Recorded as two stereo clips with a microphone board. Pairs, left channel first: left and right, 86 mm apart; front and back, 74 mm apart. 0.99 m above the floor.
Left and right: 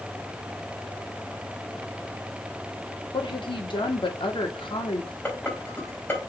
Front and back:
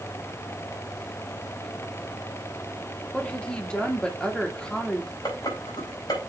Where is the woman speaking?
80° left, 2 m.